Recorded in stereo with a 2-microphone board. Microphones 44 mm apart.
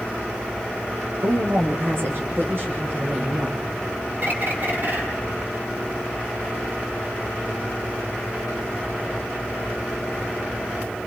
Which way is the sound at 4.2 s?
50° right (ahead or behind).